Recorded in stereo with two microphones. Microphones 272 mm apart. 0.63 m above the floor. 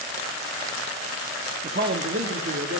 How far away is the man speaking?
About 0.6 m.